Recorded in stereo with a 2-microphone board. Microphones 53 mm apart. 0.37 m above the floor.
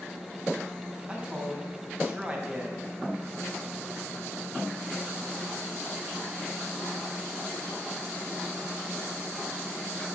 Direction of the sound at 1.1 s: 25° right (ahead or behind).